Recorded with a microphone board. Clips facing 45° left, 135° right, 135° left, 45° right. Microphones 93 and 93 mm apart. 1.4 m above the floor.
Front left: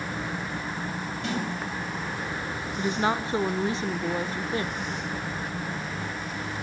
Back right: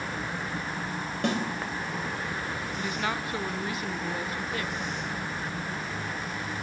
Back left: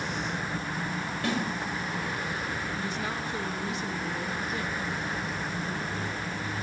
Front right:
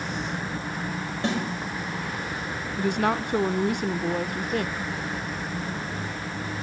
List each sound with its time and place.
1.2 s a snare drum: 110° right, 7 m
2.8 s a woman speaking: 15° right, 0.9 m